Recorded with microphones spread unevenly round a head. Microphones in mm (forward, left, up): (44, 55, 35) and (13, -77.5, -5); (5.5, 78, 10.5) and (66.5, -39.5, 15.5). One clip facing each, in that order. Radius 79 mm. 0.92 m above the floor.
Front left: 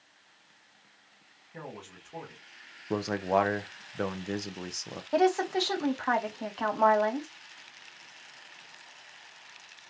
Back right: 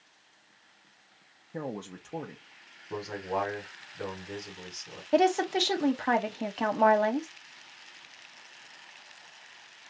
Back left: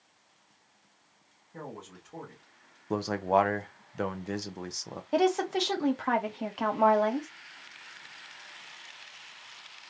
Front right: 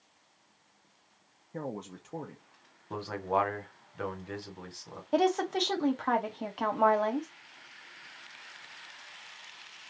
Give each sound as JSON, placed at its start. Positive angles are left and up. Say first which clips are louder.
{"t": 1.5, "sound": "a man speaking", "louder": "back right 7 dB, front right 5 dB", "azimuth_deg": -115, "distance_m": 0.6}
{"t": 2.9, "sound": "a man speaking", "louder": "front left 6 dB, back left 5 dB", "azimuth_deg": 100, "distance_m": 0.6}
{"t": 5.1, "sound": "a woman speaking", "louder": "back right 1 dB, back left 1 dB", "azimuth_deg": -155, "distance_m": 0.6}